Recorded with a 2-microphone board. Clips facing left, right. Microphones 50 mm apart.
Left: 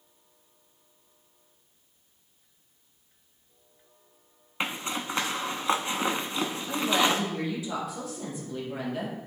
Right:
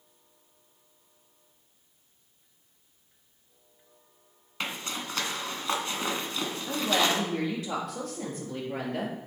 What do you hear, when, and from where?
4.6 s a zipper: 25° left (ahead or behind), 0.7 m
6.7 s a woman speaking: 65° right (ahead or behind), 3 m